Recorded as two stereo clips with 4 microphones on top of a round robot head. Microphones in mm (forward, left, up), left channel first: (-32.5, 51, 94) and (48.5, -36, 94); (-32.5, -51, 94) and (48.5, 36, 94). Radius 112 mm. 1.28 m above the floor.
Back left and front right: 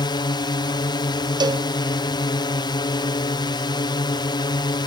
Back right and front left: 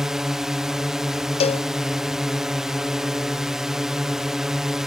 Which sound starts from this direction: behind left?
A drone, at 0.0 s.